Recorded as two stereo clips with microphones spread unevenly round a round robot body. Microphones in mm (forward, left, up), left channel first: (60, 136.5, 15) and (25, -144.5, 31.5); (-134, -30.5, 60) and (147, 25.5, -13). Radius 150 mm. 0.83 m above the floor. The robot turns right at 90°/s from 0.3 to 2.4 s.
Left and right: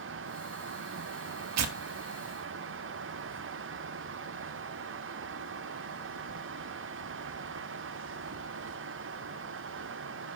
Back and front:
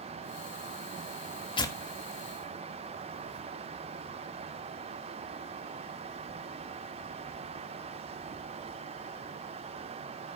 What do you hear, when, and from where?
1.6 s tearing paper: 90° right, 1.3 m; by 3.5 s 15° right, 1.3 m